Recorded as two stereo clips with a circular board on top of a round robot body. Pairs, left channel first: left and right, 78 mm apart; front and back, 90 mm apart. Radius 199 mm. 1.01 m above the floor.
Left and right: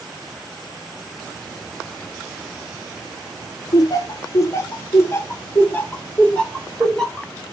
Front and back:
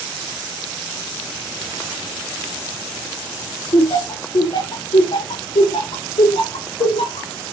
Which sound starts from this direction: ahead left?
Laughter, at 3.7 s.